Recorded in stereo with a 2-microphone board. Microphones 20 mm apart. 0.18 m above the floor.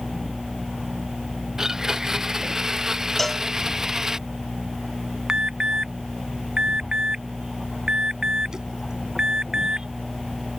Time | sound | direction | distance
1.6 | a blender | 25° right (ahead or behind) | ?
3.2 | a cowbell | 10° left (ahead or behind) | ?
5.3 | an alarm | 35° right (ahead or behind) | ?